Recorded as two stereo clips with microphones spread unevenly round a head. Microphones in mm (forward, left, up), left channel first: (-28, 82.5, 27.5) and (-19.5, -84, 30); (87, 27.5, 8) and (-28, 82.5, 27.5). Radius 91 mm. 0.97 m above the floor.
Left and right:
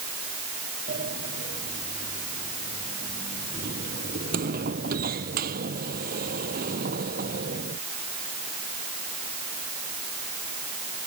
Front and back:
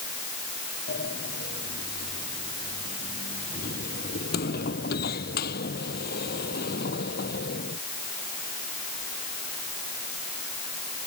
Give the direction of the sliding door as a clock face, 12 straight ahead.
1 o'clock.